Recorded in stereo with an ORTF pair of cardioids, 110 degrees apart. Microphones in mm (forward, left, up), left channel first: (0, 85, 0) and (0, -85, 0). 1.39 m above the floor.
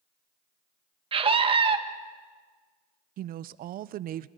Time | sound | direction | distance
1.1 | a scream | 35° right | 1.8 m
3.2 | a woman speaking | 60° right | 0.7 m